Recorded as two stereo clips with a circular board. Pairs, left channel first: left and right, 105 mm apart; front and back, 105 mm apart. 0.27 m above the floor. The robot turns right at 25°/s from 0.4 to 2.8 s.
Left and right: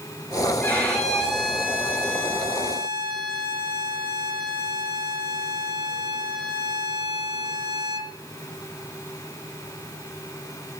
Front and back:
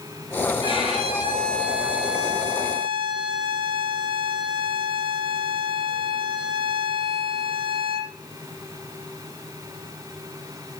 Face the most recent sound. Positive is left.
turn(degrees=-140)